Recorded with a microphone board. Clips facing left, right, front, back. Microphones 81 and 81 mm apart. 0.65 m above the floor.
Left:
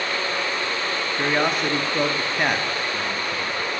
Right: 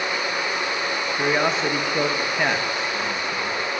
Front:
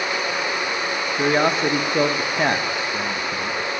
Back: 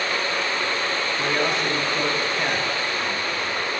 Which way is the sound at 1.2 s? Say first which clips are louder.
Right 1 dB, front 7 dB; 5° left.